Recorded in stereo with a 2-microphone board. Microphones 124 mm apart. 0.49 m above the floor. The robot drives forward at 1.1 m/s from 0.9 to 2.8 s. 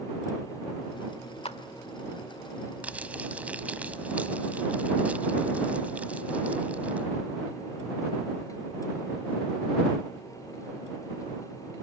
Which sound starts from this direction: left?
A clap, at 1.4 s.